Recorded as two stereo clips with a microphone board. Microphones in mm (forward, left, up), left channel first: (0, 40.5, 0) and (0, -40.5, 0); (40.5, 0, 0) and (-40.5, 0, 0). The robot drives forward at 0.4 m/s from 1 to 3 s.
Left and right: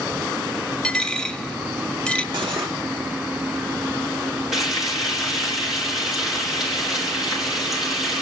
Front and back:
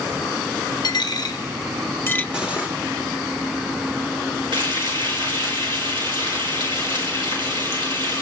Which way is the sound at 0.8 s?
10° left.